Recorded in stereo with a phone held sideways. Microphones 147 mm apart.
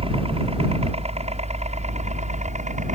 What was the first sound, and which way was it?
A helicopter, 40° right (ahead or behind).